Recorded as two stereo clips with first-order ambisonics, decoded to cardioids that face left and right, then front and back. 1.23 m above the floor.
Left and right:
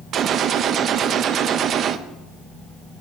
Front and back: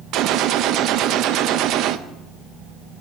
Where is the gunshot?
140° right, 0.6 m.